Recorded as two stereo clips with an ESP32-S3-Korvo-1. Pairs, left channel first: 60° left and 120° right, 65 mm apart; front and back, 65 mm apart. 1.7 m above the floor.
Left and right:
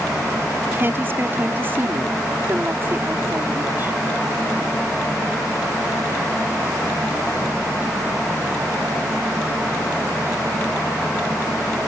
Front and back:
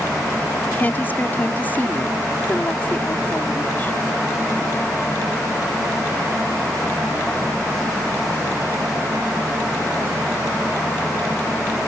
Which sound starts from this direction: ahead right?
A woman speaking, at 0.7 s.